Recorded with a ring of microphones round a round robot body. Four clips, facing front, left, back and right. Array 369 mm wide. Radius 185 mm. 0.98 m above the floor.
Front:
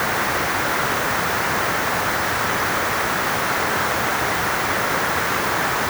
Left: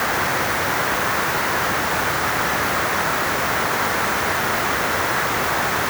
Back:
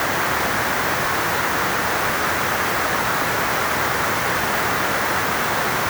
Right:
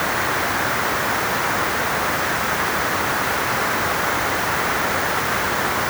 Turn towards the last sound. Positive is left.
No sound to turn to.